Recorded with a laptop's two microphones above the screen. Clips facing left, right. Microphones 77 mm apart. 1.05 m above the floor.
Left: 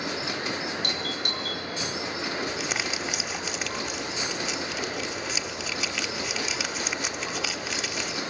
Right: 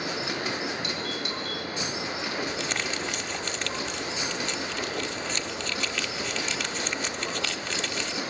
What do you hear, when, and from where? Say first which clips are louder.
0.8 s a doorbell: even; 60° left (ahead or behind), 4 m
2.5 s crumpling: even; 5° left (ahead or behind), 0.9 m